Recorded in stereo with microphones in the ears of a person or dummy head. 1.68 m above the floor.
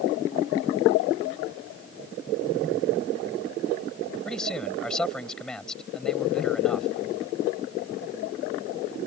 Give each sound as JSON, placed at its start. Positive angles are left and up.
{"t": 4.2, "sound": "a man speaking", "side_deg": 5}